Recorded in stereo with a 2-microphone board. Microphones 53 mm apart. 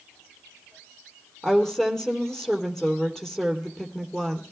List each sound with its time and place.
1.4 s a woman speaking: 10° left (ahead or behind), 3.5 m